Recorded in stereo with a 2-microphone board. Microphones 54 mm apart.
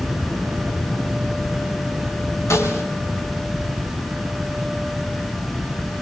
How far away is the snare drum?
About 4.5 m.